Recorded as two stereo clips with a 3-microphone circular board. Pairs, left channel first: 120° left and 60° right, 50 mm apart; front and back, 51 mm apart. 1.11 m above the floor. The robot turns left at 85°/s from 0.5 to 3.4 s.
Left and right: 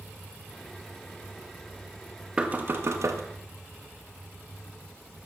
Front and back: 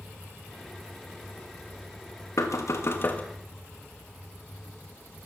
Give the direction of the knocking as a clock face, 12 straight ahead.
12 o'clock.